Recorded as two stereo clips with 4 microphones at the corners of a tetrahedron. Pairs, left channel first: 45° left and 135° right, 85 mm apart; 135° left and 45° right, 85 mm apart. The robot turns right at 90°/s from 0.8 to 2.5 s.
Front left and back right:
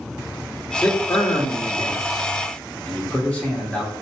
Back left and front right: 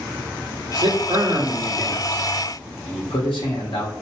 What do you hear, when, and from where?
0.8 s a man speaking: 30° right, 0.9 m; by 3.9 s 125° left, 0.9 m